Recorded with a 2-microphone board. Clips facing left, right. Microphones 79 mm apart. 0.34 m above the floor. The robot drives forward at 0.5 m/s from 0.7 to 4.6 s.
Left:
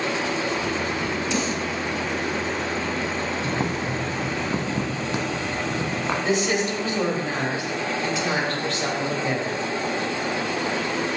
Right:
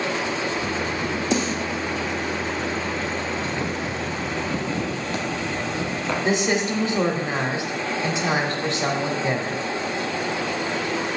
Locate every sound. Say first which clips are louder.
1.3 s a snare drum: right 4 dB; 45° right (ahead or behind), 1.7 m
3.4 s boiling: left 1 dB; 50° left (ahead or behind), 0.5 m; by 6.2 s 25° left (ahead or behind), 1.0 m
6.2 s a woman speaking: right 2 dB; 20° right (ahead or behind), 1.2 m